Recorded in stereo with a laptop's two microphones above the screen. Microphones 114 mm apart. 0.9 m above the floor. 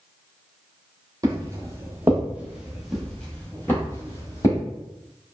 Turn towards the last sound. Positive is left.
turn(degrees=30)  # may be behind; listen again after turning